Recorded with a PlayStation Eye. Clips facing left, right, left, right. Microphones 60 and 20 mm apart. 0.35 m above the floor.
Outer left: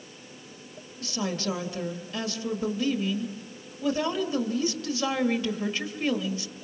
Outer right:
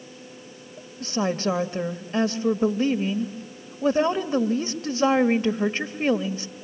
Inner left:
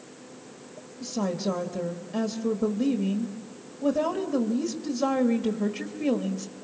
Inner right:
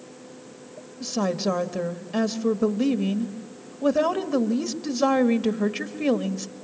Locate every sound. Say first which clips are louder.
1.0 s a woman speaking: outer right 6 dB, inner right 4 dB; 40° right (ahead or behind), 1.4 m